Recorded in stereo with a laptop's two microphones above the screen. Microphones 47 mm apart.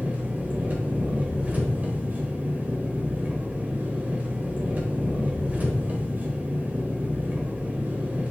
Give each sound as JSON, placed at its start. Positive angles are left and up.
{"t": 0.0, "sound": "an engine running", "side_deg": -35, "distance_m": 0.8}